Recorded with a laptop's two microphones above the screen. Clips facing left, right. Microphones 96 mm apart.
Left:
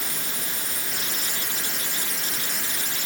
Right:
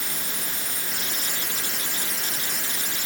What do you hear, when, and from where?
Only background noise.